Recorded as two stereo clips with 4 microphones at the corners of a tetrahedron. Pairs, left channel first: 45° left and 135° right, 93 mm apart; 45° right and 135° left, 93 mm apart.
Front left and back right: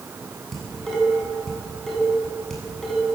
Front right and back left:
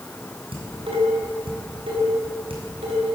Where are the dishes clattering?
130° left, 8 m.